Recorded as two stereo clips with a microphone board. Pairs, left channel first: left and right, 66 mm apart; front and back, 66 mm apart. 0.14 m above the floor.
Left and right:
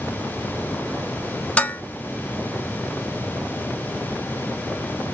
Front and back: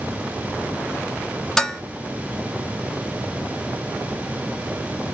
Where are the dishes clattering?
70° left, 0.7 m.